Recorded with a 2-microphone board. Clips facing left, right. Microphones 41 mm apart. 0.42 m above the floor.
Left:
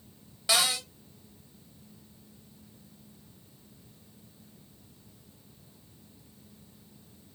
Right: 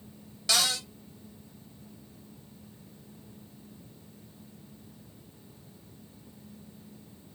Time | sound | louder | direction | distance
0.5 | a cupboard door | left 1 dB | 15° left (ahead or behind) | 0.6 m